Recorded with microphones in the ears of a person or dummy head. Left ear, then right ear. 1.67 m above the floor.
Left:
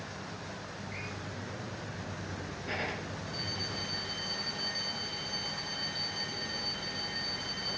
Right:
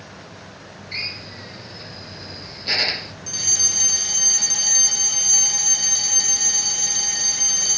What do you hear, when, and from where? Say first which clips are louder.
0.9 s a drill: right 16 dB; 75° right (ahead or behind)
3.3 s a fire alarm: right 17 dB; 80° right